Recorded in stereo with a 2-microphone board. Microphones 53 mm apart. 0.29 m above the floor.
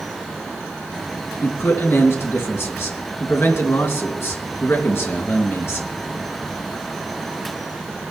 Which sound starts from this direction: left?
A man speaking, at 1.4 s.